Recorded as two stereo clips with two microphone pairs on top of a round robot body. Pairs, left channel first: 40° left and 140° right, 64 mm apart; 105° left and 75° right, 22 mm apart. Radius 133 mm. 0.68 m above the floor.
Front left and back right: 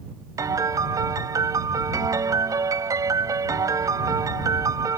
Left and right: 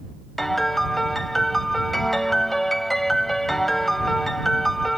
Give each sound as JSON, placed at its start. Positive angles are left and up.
{"t": 0.4, "sound": "a piano", "azimuth_deg": -175}